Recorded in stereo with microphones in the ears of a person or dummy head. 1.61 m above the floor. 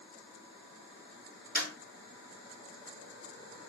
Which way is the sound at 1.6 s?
5° left (ahead or behind).